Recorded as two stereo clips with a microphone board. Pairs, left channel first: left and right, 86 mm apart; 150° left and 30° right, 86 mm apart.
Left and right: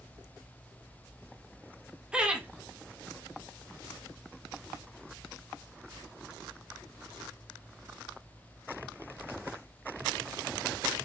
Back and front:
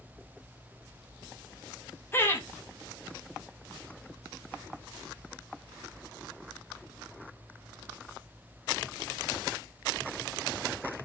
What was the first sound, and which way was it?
Laughter, 165° right.